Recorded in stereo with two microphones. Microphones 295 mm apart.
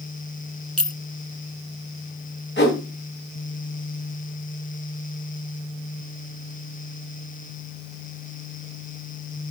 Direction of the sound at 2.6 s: 40° left (ahead or behind).